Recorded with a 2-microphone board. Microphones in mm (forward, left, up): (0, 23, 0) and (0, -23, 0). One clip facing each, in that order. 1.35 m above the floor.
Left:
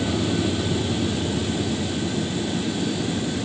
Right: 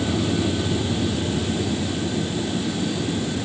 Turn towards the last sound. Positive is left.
No sound to turn to.